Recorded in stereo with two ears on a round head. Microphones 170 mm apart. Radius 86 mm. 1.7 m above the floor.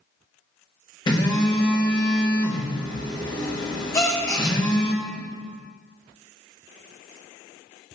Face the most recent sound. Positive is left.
turn(degrees=15)  # may be behind; listen again after turning